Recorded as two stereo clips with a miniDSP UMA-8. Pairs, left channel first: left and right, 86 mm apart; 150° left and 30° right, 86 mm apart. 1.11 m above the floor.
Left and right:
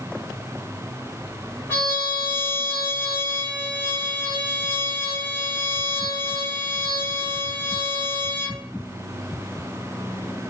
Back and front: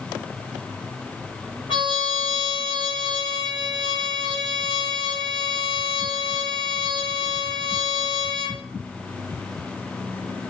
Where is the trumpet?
160° left, 1.4 m.